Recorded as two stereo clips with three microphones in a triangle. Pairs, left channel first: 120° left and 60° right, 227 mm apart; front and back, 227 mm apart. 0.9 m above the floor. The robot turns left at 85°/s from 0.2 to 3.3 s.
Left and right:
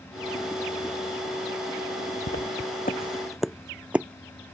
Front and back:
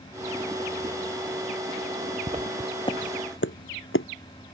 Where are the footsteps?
120° left; by 4.1 s 25° left.